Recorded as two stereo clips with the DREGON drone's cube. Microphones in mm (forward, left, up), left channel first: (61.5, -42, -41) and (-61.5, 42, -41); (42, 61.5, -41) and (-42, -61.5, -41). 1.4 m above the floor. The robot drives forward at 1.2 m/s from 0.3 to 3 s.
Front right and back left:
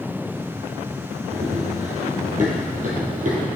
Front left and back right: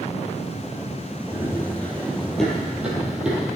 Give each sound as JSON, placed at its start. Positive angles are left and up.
{"t": 1.3, "sound": "running footsteps", "azimuth_deg": 120, "distance_m": 2.0}